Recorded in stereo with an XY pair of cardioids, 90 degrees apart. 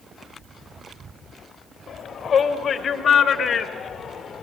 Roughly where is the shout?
Ahead left.